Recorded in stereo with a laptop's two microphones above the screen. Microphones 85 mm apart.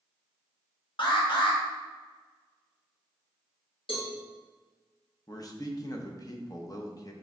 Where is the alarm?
60° left (ahead or behind), 1.2 m.